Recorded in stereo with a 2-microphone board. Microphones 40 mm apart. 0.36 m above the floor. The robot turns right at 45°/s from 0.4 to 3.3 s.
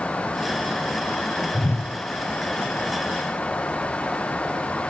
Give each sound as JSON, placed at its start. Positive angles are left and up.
{"t": 1.5, "sound": "a whoosh", "side_deg": 70, "distance_m": 0.8}